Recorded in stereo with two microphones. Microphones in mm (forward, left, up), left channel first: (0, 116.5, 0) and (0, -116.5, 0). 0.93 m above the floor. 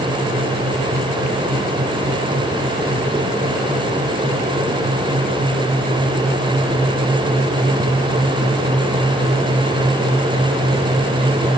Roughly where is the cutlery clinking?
No cutlery clinking in this recording.